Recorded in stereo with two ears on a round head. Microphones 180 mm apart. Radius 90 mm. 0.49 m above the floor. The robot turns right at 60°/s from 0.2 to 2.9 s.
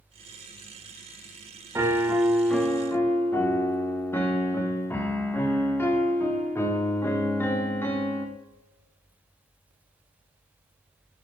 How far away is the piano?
About 0.5 m.